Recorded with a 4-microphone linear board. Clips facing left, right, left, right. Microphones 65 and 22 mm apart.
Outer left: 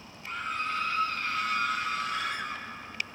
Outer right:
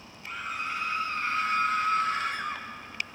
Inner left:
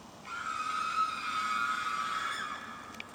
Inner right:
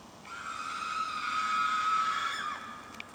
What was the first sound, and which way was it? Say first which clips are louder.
A scream: outer left 1 dB, inner left 3 dB; centre (ahead or behind).